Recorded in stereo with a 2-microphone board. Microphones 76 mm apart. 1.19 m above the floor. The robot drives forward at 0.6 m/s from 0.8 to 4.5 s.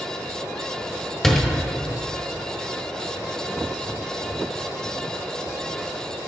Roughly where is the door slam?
Centre.